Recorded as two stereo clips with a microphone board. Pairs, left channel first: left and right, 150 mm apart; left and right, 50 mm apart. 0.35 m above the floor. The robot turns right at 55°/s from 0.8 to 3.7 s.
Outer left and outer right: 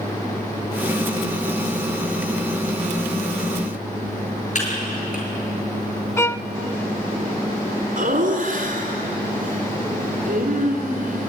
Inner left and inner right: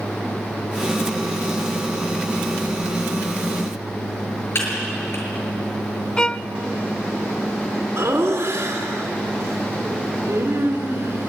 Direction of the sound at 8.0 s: 65° right (ahead or behind).